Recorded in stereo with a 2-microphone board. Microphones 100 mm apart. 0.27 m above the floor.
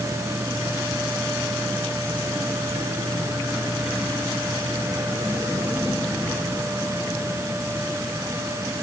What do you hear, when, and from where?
Only background noise.